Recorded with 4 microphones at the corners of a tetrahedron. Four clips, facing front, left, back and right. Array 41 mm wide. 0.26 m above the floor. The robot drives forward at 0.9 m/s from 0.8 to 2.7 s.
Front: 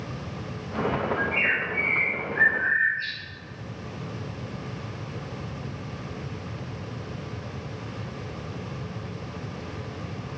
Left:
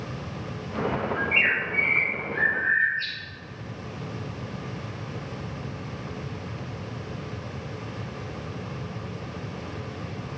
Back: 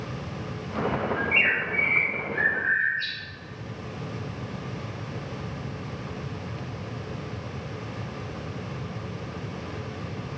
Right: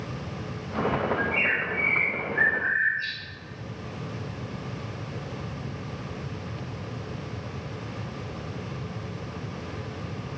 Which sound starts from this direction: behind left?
A bird, at 1.1 s.